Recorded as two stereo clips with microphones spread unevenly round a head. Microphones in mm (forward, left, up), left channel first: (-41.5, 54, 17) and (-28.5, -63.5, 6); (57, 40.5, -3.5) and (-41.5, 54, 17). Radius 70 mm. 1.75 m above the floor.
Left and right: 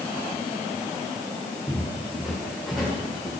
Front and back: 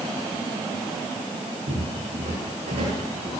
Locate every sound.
1.7 s footsteps: 170° right, 7.5 m